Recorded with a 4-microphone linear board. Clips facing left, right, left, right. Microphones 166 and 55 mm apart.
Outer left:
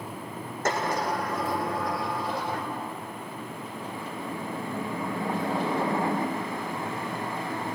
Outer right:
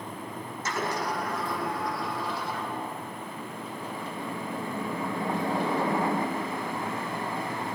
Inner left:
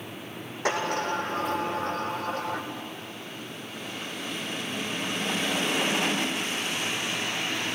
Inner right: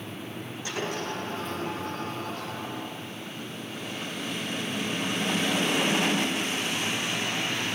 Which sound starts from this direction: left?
A sliding door, at 0.7 s.